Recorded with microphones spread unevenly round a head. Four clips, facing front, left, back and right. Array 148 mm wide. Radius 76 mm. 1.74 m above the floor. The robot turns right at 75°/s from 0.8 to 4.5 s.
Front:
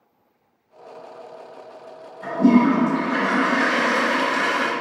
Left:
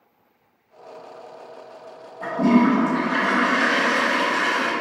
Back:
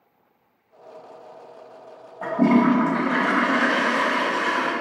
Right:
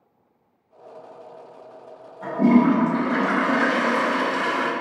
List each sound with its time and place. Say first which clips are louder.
2.2 s a toilet flushing: even, front 2 dB; 160° left, 1.0 m; by 4.7 s 30° right, 1.0 m